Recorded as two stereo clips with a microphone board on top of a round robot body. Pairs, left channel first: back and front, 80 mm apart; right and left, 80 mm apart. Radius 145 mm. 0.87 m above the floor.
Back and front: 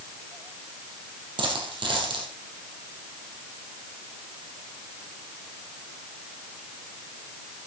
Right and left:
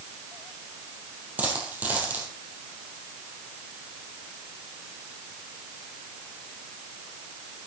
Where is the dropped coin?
20° left, 2.5 m.